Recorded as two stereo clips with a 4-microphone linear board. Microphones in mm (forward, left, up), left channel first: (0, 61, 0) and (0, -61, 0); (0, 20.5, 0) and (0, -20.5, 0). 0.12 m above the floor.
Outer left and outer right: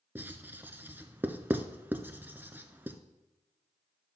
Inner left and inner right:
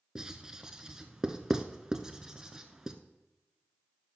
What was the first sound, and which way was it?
Writing, 15° right (ahead or behind).